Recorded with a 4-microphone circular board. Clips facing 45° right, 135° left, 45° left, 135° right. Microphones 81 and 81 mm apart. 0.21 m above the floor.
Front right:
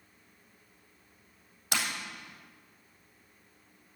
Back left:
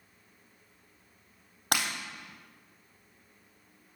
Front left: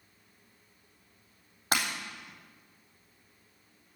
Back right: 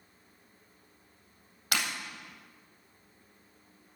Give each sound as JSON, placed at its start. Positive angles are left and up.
{"t": 1.7, "sound": "breaking glass", "azimuth_deg": 100, "distance_m": 3.5}